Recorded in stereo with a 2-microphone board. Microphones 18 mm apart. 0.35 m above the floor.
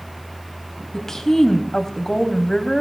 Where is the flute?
I don't hear a flute.